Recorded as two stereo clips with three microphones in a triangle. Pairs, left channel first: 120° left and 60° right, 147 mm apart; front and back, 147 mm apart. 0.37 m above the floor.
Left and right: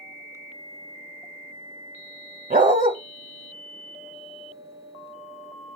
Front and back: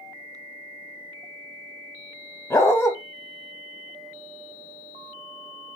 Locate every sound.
2.5 s a dog barking: 70° right, 0.8 m